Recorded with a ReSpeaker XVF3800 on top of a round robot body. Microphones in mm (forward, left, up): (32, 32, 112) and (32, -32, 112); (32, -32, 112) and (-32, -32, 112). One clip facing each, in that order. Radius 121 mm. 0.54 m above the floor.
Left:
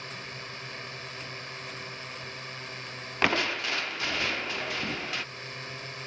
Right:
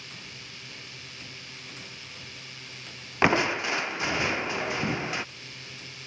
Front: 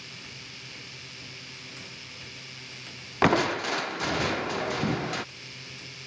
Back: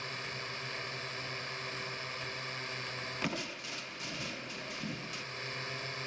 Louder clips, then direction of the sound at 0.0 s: Left 5 dB, back 5 dB; 135° left.